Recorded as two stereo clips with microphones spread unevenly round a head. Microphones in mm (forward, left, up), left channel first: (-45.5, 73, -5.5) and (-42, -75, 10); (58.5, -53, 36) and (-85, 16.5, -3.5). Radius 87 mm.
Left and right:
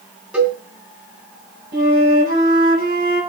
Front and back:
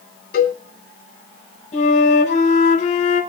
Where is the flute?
65° right, 5 m.